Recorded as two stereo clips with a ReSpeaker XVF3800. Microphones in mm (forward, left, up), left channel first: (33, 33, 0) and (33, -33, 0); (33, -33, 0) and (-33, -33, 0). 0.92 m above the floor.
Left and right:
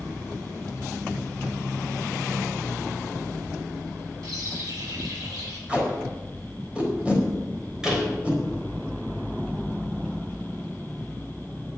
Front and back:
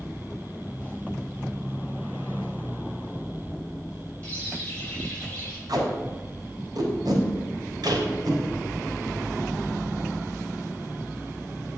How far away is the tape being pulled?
About 4 m.